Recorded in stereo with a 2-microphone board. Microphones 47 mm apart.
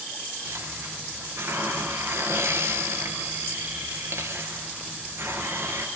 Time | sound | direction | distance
0.4 | a hiss | 70° right (ahead or behind) | 5 m